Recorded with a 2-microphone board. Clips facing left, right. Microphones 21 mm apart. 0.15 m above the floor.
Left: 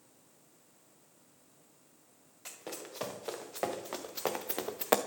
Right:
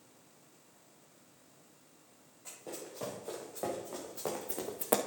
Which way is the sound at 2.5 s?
90° left.